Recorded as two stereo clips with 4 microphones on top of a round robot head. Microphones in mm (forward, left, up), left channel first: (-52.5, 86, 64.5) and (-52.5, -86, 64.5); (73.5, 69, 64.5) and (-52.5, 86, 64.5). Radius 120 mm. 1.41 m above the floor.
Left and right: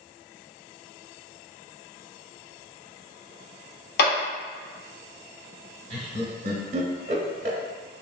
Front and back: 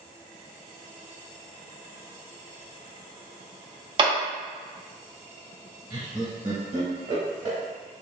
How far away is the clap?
About 0.9 m.